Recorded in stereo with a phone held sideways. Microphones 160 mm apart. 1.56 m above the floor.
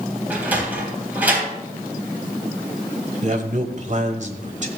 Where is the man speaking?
50° right (ahead or behind), 1.2 m.